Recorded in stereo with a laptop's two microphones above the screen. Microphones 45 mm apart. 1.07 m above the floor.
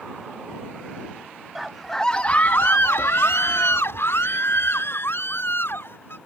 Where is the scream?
5° right (ahead or behind); by 6.2 s 55° left (ahead or behind).